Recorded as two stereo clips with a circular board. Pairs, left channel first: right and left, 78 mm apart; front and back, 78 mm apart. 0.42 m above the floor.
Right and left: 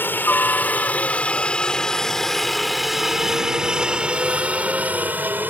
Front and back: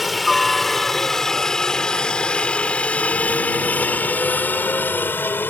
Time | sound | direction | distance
0.0 | a helicopter | 90° right | ?